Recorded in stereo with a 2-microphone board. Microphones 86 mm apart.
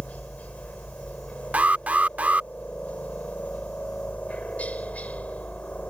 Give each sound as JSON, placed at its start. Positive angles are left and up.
{"t": 0.0, "sound": "a helicopter", "side_deg": 15}
{"t": 1.5, "sound": "an alarm", "side_deg": -20}